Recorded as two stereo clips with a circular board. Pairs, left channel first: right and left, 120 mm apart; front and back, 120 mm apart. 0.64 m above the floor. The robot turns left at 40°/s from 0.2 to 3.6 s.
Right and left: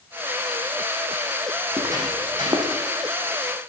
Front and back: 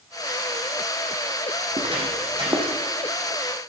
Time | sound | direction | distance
1.7 | footsteps | 145° left | 1.8 m